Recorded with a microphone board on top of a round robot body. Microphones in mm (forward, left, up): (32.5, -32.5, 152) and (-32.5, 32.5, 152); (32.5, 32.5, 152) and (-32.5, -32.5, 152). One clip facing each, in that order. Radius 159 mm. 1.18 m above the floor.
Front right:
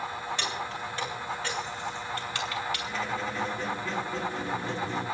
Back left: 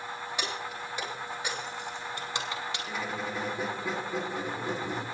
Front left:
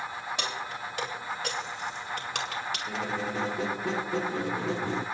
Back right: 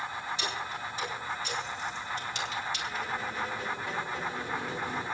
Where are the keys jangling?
60° left, 7.5 m; by 2.8 s 70° left, 4.5 m.